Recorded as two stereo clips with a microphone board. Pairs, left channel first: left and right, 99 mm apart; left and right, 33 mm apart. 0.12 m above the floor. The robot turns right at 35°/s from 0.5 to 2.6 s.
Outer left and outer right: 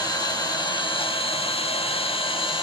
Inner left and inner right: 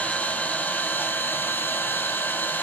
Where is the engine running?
40° left, 1.3 m; by 2.6 s 115° left, 1.3 m.